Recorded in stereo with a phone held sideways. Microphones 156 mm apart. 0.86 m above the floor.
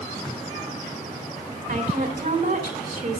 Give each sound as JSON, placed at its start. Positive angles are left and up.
{"t": 1.7, "sound": "a woman speaking", "side_deg": -65, "distance_m": 2.0}